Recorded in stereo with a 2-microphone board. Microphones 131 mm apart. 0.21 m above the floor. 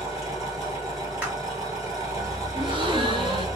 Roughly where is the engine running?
Right.